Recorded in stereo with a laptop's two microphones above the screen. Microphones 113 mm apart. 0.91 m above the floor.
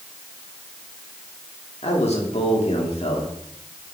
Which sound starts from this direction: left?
A man speaking, at 1.8 s.